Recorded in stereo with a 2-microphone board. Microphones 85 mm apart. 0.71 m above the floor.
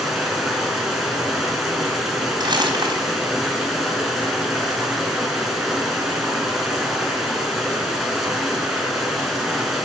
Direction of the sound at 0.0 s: 5° right (ahead or behind).